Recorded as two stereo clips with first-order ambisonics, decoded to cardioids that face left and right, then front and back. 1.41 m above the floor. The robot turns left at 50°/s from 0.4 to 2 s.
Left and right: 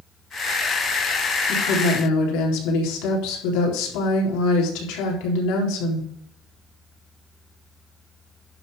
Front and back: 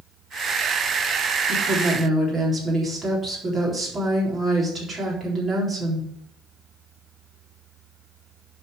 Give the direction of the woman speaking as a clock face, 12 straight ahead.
8 o'clock.